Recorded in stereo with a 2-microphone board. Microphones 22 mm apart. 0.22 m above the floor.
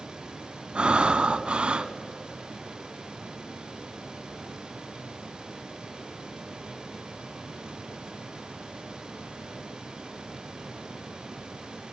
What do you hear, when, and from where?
0.8 s breathing: 55° right (ahead or behind), 0.6 m